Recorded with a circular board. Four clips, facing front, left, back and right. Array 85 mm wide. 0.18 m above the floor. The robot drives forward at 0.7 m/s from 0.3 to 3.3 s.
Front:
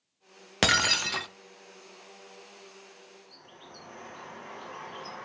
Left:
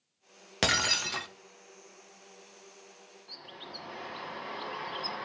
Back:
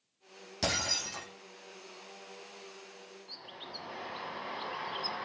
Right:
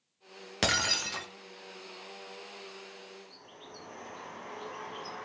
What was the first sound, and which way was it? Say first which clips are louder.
Breaking glass: left 1 dB, front 9 dB; 5° left.